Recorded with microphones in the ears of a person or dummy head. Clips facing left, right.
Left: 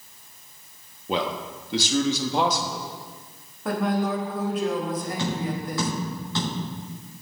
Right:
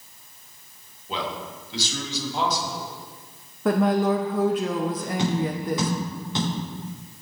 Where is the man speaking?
55° left (ahead or behind), 1.6 m.